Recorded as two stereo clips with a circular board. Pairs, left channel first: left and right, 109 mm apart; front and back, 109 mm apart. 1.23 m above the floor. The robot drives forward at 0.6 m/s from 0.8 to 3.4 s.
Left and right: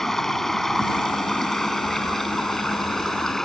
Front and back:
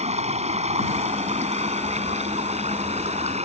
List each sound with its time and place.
0.0 s running water: straight behind